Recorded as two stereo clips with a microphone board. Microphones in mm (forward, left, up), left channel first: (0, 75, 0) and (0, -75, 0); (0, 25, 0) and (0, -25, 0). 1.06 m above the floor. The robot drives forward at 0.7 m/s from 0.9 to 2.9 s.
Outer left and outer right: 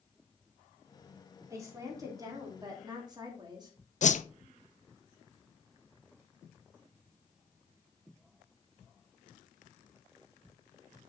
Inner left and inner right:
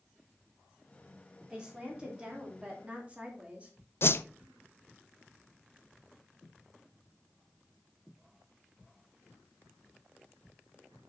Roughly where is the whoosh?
Left.